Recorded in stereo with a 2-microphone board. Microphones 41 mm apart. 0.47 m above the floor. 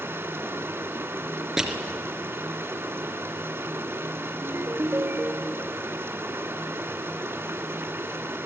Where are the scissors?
I don't hear scissors.